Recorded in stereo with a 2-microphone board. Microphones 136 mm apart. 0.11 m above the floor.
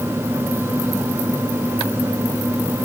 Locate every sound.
Only background noise.